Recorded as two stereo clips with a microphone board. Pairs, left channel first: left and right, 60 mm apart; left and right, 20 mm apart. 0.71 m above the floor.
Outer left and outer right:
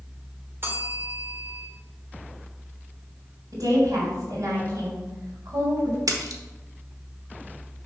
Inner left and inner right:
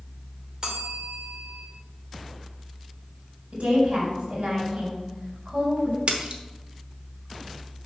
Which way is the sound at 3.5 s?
65° right (ahead or behind).